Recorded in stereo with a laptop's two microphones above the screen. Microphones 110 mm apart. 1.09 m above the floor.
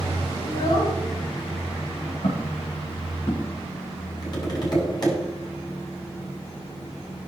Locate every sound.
0.4 s a child speaking: 35° left (ahead or behind), 2.5 m; by 2.1 s 30° left (ahead or behind), 5 m
2.2 s footsteps: 75° left (ahead or behind), 7.5 m; by 3.5 s 70° left (ahead or behind), 8.5 m
4.2 s tapping: 40° left (ahead or behind), 6.5 m